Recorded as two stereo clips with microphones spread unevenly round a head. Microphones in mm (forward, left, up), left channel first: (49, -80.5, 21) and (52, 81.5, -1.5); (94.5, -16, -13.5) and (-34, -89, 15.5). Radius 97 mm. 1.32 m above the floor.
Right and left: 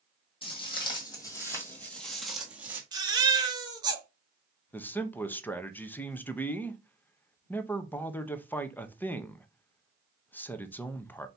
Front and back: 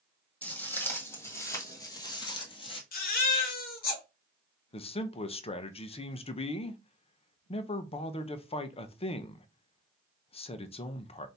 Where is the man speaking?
10° right, 0.7 m.